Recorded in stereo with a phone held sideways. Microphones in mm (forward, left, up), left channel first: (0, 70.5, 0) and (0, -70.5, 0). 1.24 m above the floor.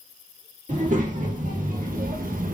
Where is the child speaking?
65° right (ahead or behind), 1.9 m; by 2.5 s 75° right (ahead or behind), 1.1 m.